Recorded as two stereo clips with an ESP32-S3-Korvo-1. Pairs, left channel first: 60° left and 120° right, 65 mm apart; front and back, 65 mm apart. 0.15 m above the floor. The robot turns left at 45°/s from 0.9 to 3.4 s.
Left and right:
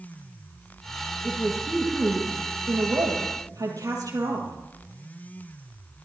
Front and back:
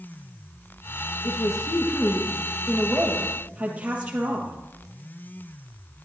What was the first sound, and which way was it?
A woman speaking, 15° right.